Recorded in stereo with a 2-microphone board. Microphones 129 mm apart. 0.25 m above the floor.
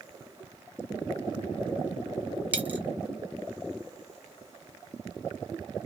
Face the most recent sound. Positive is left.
turn(degrees=-15)  # may be behind; listen again after turning